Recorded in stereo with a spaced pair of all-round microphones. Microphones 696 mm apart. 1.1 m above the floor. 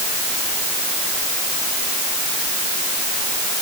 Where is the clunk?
I don't hear a clunk.